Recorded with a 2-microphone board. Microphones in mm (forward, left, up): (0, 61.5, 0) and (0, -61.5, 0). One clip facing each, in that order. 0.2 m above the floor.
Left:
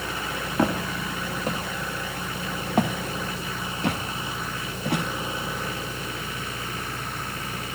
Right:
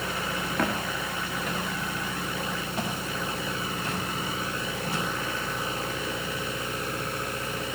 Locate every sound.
0.6 s footsteps: 25° left (ahead or behind), 2.5 m; by 5.0 s 75° left (ahead or behind), 2 m